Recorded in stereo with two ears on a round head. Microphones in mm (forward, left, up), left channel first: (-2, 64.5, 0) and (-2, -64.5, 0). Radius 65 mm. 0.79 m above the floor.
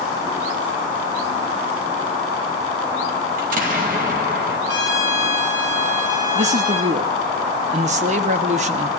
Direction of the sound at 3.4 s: 60° right (ahead or behind).